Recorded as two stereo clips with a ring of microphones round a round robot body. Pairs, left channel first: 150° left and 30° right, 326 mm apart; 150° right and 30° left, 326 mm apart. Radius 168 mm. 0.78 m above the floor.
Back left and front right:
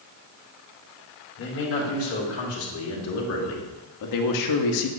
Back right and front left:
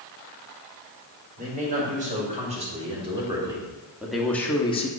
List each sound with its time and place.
1.4 s a man speaking: 95° left, 3 m; by 4.9 s 140° left, 0.9 m